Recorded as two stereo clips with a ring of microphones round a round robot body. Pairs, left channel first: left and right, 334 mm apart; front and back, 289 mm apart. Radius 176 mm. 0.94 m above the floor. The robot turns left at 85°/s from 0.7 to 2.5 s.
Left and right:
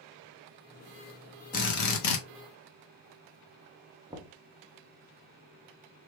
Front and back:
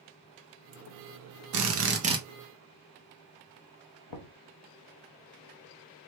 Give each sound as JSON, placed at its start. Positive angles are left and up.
{"t": 1.5, "sound": "a drill", "azimuth_deg": 160, "distance_m": 1.0}
{"t": 4.1, "sound": "knocking", "azimuth_deg": -10, "distance_m": 0.6}